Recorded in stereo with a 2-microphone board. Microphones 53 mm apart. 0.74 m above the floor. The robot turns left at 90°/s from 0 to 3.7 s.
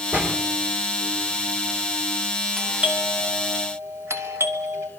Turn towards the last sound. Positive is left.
turn(degrees=-60)  # may be behind; listen again after turning